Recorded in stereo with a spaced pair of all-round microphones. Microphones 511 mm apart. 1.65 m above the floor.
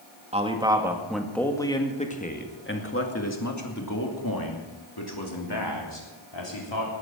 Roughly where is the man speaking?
Centre.